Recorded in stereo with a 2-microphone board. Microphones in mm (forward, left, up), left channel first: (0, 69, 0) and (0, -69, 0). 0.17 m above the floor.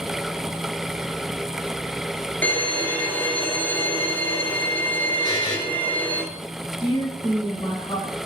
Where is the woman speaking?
35° left (ahead or behind), 1.9 m.